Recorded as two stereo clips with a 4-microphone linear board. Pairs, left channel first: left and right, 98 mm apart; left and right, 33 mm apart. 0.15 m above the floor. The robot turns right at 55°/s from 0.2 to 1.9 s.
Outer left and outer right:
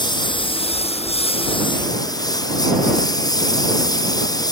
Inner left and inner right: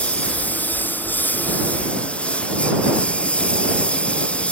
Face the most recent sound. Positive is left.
turn(degrees=140)